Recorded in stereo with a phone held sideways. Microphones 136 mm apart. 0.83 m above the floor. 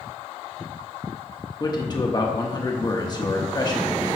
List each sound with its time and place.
1.6 s a man speaking: 30° left (ahead or behind), 0.9 m